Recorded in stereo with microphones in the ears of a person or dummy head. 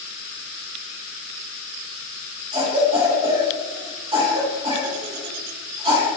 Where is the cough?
25° right (ahead or behind), 1.0 m.